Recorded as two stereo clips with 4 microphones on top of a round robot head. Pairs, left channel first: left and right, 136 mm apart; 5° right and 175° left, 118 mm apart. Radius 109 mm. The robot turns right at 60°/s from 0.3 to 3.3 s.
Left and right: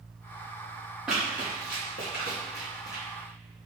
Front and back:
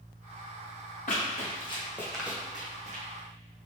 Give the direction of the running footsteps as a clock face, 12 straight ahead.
12 o'clock.